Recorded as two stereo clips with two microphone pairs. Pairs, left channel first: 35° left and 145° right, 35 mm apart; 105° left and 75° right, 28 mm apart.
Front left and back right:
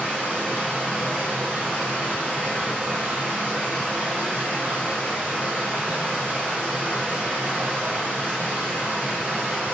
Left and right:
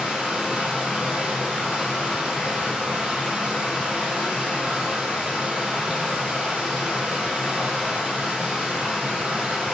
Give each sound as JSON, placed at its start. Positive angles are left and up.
{"t": 0.0, "sound": "running water", "azimuth_deg": -125, "distance_m": 1.4}